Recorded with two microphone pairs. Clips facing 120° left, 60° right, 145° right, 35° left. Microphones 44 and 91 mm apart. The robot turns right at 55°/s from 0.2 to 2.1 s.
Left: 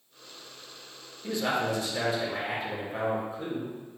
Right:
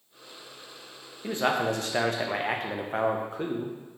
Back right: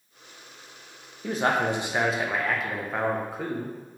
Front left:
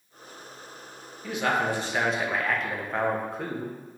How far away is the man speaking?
About 0.6 m.